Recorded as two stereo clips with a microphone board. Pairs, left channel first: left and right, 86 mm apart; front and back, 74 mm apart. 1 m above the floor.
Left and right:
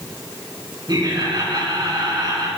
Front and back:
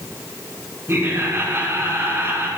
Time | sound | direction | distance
0.9 | laughter | 125° right | 6 m